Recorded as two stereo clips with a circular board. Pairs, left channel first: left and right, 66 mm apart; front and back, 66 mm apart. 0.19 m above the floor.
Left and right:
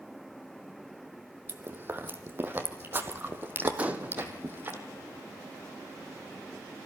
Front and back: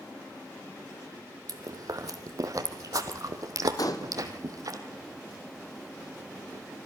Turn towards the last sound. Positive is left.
turn(degrees=-25)